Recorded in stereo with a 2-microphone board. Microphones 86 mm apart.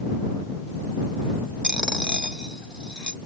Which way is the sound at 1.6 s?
10° right (ahead or behind).